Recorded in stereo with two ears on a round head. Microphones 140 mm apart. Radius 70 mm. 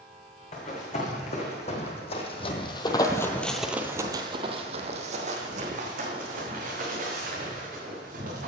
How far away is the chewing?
I don't hear chewing.